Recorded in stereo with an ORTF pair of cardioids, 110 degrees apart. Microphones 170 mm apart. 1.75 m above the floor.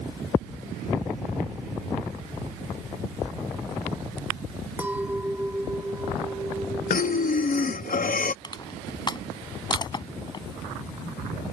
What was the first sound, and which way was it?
A clink, 10° right.